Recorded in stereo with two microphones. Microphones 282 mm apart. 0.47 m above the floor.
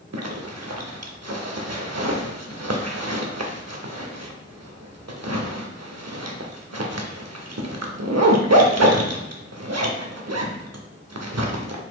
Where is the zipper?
70° right (ahead or behind), 0.6 m.